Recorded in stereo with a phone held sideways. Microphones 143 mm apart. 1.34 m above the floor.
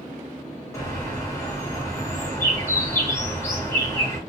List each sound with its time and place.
0.7 s a bird: 20° left (ahead or behind), 1.1 m